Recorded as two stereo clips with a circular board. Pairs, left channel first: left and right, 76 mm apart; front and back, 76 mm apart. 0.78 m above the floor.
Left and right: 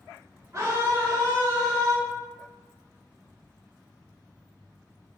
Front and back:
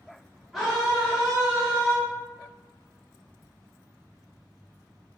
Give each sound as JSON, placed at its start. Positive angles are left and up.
{"t": 0.5, "sound": "a scream", "azimuth_deg": -85, "distance_m": 0.7}